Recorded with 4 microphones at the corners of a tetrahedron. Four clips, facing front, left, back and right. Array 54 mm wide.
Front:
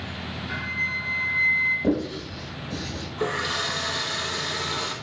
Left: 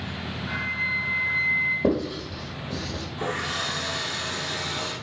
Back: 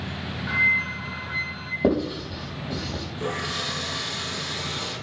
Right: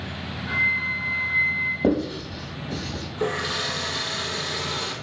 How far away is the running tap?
About 4 m.